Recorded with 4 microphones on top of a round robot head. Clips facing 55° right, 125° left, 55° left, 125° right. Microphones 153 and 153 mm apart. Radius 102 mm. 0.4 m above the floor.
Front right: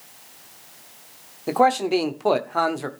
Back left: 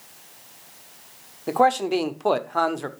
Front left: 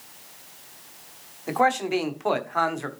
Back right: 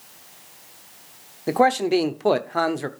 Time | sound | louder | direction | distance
1.5 | a man speaking | front right 1 dB, back right 4 dB | 140° right | 1.1 m